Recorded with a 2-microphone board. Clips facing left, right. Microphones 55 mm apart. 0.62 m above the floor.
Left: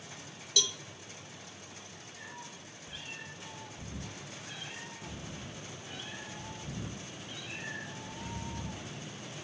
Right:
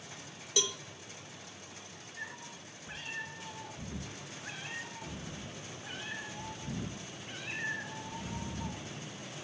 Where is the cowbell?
20° right (ahead or behind), 0.5 m.